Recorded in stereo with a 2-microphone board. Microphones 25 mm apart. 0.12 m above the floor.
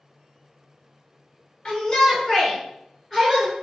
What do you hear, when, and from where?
1.6 s a shout: 40° left (ahead or behind), 1.4 m; by 3.5 s 5° right (ahead or behind), 1.5 m